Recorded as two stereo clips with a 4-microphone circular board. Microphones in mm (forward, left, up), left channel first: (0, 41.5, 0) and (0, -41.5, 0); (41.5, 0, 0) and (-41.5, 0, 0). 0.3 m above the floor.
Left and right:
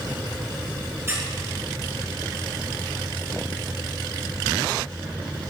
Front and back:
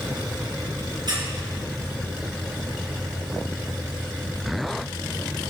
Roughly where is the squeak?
Behind right.